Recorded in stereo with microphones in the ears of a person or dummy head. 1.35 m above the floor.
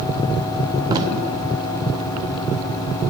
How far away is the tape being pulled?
About 0.9 m.